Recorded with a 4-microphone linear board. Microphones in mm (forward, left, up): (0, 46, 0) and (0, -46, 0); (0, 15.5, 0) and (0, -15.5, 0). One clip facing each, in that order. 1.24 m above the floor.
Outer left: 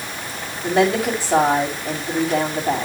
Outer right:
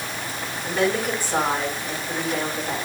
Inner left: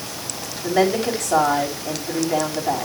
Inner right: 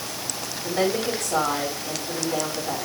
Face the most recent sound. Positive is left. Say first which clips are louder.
# outer left 5 dB, inner left 5 dB
turn(degrees=80)